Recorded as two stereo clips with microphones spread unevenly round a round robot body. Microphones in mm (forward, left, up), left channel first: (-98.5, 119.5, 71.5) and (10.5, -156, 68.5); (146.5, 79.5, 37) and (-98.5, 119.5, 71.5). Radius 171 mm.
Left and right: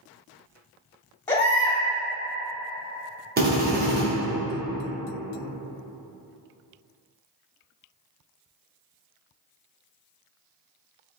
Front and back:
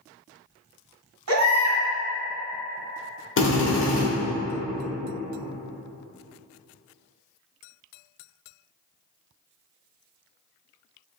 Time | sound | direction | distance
1.3 | a baby crying | 170° right | 1.6 m
3.4 | a drill | 15° right | 1.3 m